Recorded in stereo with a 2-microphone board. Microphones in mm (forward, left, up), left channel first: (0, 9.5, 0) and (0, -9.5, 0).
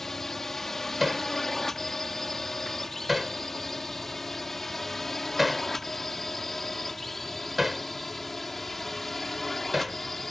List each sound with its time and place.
0.0 s a drone: 15° left (ahead or behind); by 10.3 s 5° left (ahead or behind)
1.0 s hammering: 5° right (ahead or behind)